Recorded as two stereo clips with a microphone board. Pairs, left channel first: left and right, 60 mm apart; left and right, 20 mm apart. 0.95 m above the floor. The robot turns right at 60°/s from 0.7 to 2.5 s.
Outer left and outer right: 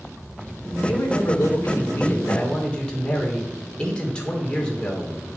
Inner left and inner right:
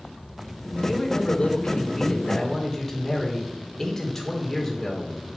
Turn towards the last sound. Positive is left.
turn(degrees=160)